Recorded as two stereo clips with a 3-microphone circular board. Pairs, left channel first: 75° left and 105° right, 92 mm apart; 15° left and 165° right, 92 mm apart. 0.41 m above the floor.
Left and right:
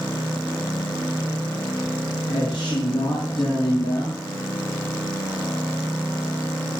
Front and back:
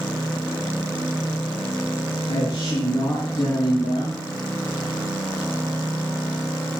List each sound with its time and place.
2.3 s a man speaking: 65° left, 4 m; by 4.2 s 45° left, 3 m